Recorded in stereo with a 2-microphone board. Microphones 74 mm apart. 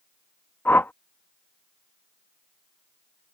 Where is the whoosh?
30° left (ahead or behind).